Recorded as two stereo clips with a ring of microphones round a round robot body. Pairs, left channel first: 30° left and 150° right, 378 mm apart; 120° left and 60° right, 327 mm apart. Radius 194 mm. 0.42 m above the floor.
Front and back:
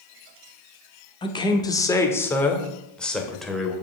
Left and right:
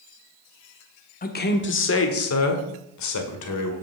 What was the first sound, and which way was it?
A man speaking, 90° left.